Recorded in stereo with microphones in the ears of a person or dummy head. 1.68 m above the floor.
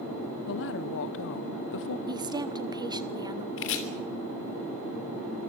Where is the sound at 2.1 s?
20° right (ahead or behind), 1.0 m.